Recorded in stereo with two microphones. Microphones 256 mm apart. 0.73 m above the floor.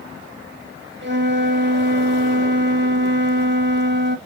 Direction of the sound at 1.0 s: 45° right (ahead or behind).